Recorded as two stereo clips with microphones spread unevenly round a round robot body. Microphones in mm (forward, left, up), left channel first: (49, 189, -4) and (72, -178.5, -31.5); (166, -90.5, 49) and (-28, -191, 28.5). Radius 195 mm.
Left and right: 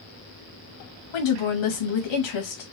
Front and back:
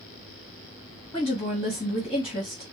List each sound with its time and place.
1.1 s a woman speaking: 105° left, 1.0 m